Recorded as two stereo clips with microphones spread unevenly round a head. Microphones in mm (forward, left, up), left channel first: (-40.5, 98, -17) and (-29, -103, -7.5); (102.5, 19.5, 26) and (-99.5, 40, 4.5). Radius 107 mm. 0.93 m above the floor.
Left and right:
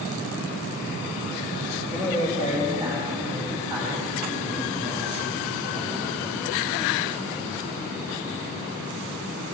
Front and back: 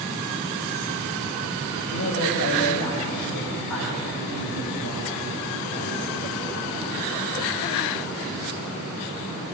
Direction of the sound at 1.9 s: Straight ahead.